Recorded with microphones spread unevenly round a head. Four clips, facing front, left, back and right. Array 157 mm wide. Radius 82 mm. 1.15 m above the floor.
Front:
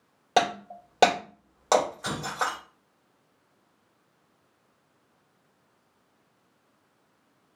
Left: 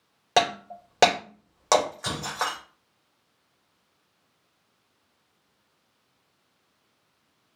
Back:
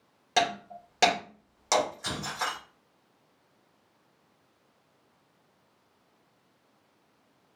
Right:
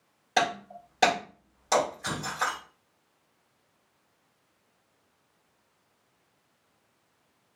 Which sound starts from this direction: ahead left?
Breaking glass, at 0.4 s.